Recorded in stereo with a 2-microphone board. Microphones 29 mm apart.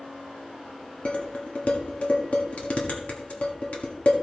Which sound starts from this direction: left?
Dishes clattering, at 1.1 s.